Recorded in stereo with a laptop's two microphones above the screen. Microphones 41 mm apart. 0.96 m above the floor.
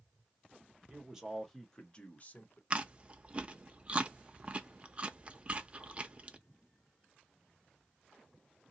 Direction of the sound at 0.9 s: 25° right (ahead or behind).